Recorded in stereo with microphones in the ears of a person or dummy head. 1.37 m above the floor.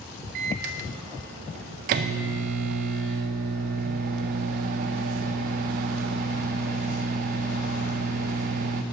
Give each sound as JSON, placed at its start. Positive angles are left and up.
{"t": 0.3, "sound": "a microwave", "side_deg": -45, "distance_m": 0.6}